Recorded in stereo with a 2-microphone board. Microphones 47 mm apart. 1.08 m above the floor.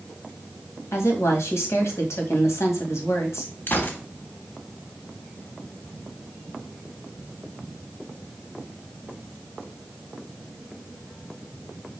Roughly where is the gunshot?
Left.